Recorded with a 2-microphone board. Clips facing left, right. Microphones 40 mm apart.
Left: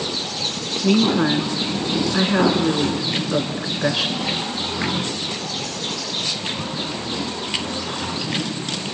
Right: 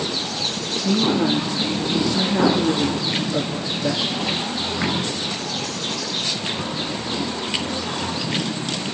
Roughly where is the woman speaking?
Left.